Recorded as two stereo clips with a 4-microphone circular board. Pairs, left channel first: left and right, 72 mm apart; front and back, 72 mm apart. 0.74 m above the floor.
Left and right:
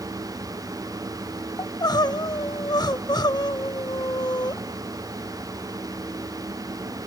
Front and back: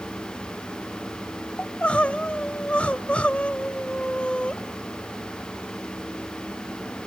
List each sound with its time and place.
1.6 s crying: 75° left, 0.6 m